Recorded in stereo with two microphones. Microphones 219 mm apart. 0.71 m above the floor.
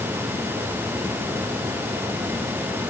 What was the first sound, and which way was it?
Only background noise.